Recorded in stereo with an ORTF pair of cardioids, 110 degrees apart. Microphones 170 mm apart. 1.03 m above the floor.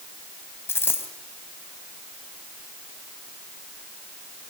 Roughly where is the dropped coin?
Ahead.